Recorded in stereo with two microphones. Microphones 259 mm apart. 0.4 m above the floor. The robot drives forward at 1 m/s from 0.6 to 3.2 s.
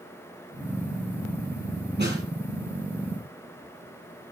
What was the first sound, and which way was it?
A snare drum, 40° right (ahead or behind).